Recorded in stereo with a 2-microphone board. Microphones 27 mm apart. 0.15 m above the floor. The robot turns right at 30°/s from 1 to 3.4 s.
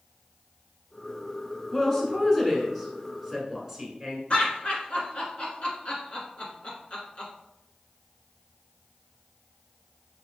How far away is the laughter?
About 1.4 m.